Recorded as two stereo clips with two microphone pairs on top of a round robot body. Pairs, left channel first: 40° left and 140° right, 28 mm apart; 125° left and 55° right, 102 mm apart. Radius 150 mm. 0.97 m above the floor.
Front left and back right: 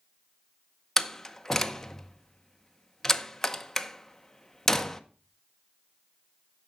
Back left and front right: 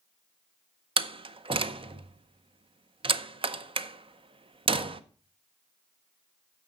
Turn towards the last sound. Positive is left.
turn(degrees=-30)